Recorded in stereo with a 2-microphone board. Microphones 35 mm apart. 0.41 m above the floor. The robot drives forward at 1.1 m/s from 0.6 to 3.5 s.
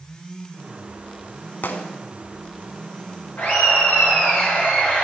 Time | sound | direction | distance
1.6 | a gunshot | 75° left (ahead or behind) | 0.6 m
3.4 | laughter | 60° left (ahead or behind) | 4 m